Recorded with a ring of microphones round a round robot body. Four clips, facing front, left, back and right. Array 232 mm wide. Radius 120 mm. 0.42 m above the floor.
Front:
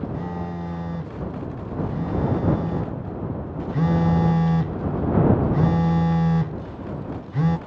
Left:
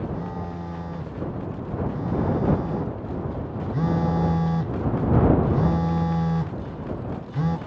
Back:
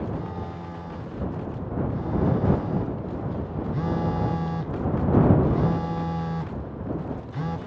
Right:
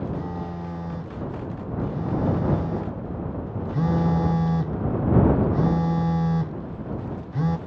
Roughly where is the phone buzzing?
Ahead.